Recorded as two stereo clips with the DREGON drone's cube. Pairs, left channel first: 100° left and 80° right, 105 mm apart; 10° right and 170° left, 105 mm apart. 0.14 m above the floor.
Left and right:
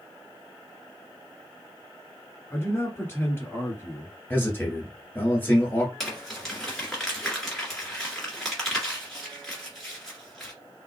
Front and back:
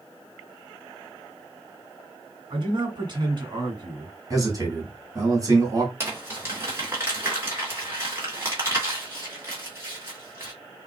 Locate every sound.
2.5 s a man speaking: 160° left, 1.9 m
4.3 s a man speaking: 155° left, 1.6 m
6.0 s crumpling: straight behind, 1.7 m